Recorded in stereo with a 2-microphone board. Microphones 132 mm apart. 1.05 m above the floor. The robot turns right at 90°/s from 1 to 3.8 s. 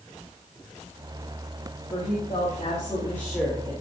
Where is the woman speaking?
50° left, 2.5 m; by 3.7 s 145° right, 2.5 m.